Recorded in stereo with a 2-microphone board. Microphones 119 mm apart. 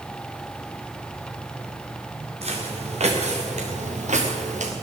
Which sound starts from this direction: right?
Footsteps, at 2.4 s.